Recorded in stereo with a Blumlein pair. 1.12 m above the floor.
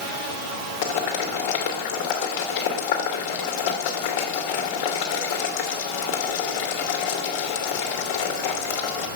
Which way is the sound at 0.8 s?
50° left.